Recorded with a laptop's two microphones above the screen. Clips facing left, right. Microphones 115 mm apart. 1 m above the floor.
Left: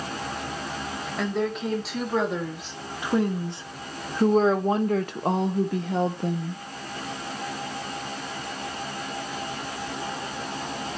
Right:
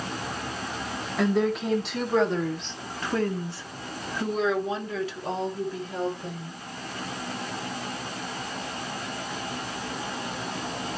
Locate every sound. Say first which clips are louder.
1.2 s a woman speaking: right 3 dB; 5° right (ahead or behind), 2.5 m; by 6.6 s 60° left (ahead or behind), 1.7 m